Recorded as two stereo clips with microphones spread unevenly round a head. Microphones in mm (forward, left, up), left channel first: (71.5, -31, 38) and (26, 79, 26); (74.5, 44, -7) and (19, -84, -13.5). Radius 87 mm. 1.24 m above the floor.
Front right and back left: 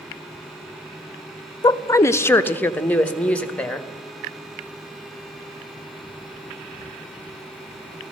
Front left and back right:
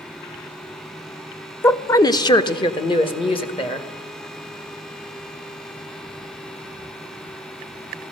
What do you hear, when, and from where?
1.6 s a woman speaking: 10° right, 0.5 m; by 3.9 s 15° left, 1.7 m